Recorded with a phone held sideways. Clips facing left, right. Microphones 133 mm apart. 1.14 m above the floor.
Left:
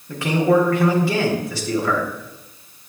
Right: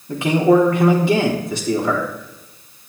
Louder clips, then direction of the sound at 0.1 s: Right 3 dB; 20° right (ahead or behind).